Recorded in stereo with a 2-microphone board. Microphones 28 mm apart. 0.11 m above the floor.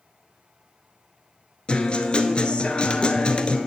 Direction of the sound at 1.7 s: 40° left (ahead or behind).